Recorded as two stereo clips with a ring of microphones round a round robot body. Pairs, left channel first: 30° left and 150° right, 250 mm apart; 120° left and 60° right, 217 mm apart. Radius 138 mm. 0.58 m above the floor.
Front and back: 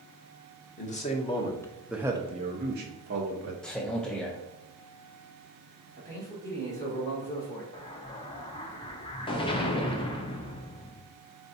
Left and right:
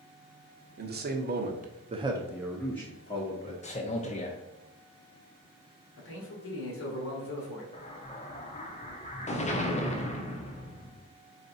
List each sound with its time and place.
0.8 s a man speaking: 25° right, 1.0 m; by 3.5 s straight behind, 1.0 m
3.6 s a man speaking: 115° left, 0.7 m
6.0 s a man speaking: 105° left, 2.0 m
7.7 s an explosion: 85° left, 0.9 m